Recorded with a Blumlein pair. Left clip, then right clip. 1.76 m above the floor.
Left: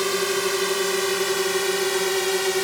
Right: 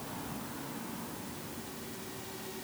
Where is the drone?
45° left; by 2.6 s 50° left.